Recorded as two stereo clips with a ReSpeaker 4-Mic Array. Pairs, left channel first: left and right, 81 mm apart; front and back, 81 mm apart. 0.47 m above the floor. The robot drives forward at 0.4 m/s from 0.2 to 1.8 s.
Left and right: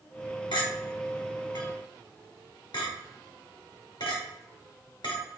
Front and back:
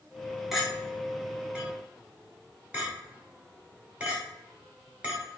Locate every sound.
0.5 s a clink: 95° left, 1.8 m; by 5.2 s 110° left, 1.9 m